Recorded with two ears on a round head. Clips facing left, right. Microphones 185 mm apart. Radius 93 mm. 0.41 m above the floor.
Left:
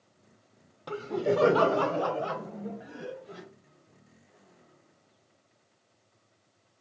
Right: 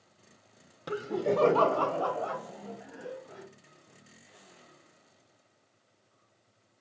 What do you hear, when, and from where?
0.9 s laughter: 20° right (ahead or behind), 0.8 m; by 3.5 s 40° left (ahead or behind), 2.5 m